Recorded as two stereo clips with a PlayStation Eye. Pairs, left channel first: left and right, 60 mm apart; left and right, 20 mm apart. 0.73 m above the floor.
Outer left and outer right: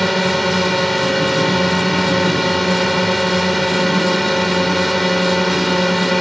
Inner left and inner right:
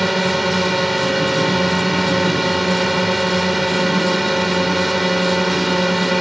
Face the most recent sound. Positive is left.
turn(degrees=0)  # may be behind; listen again after turning